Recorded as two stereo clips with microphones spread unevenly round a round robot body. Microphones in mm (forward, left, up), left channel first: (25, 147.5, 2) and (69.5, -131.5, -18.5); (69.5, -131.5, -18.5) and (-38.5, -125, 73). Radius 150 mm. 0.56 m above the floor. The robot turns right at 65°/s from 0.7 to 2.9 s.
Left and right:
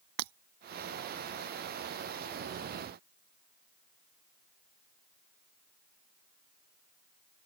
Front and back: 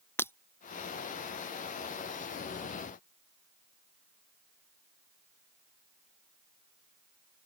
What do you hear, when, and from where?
0.2 s breaking glass: 75° right